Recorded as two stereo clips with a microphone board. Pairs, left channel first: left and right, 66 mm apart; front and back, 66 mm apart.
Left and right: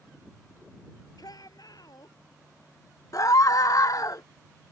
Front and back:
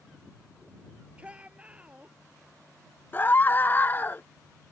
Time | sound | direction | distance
1.2 | a shout | 110° left | ?
3.1 | a scream | 60° left | ?